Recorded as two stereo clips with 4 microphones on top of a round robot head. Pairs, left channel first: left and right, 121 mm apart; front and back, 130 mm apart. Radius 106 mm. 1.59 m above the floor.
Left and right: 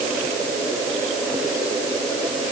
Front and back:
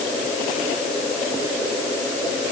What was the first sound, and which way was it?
Only background noise.